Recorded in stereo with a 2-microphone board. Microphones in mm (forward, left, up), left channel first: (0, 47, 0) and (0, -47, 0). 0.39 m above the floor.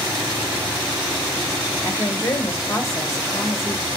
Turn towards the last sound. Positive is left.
turn(degrees=30)  # may be behind; listen again after turning